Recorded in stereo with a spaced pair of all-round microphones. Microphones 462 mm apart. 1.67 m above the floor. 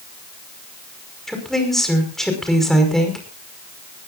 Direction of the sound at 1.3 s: Centre (ahead or behind).